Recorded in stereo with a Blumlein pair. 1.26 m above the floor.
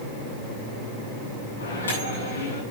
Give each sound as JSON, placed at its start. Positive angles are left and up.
{"t": 1.6, "sound": "a microwave", "azimuth_deg": 70, "distance_m": 8.5}